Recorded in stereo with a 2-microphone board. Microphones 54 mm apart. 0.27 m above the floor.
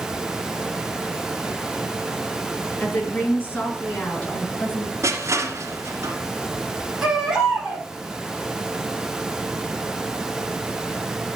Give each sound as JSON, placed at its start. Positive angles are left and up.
{"t": 2.8, "sound": "a woman speaking", "side_deg": 35, "distance_m": 5.0}
{"t": 5.0, "sound": "crushing", "side_deg": -60, "distance_m": 2.5}
{"t": 7.0, "sound": "a baby crying", "side_deg": -10, "distance_m": 4.0}